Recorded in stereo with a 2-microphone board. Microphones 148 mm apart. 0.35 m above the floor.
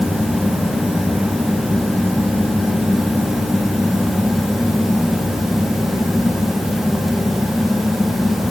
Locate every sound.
Only background noise.